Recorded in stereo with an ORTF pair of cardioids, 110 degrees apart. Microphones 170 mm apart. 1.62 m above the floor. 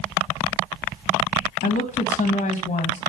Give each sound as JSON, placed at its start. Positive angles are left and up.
{"t": 1.6, "sound": "a woman speaking", "azimuth_deg": 50, "distance_m": 1.7}